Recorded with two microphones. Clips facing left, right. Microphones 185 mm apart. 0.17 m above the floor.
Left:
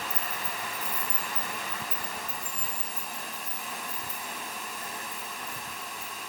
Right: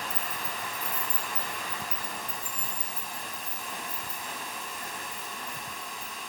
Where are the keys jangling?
5° left (ahead or behind), 3 m; by 6.1 s 40° right (ahead or behind), 6.5 m.